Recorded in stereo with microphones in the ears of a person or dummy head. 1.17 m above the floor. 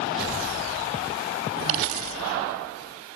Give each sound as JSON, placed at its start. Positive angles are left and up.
{"t": 1.7, "sound": "a dropped coin", "side_deg": -45}